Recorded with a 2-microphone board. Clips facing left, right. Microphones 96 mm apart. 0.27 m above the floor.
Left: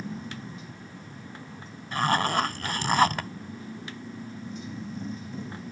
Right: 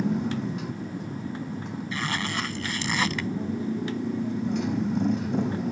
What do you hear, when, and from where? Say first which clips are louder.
0.0 s a motorcycle: right 11 dB; 70° right (ahead or behind)
1.9 s a zipper: left 7 dB; 45° left (ahead or behind)